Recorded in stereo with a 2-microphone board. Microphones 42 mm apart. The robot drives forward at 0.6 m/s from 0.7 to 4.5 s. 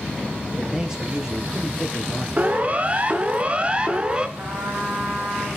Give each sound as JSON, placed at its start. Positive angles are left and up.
{"t": 0.6, "sound": "a man speaking", "side_deg": -15, "distance_m": 4.5}
{"t": 2.4, "sound": "a siren", "side_deg": -35, "distance_m": 2.0}
{"t": 4.4, "sound": "a trumpet", "side_deg": -65, "distance_m": 8.0}